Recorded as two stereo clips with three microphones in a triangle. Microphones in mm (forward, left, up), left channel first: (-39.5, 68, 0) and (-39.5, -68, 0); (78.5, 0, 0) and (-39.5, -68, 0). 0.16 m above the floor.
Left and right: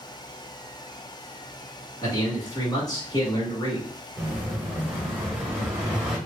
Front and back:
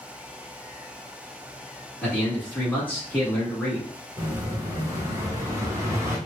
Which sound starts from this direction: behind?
An explosion, at 4.2 s.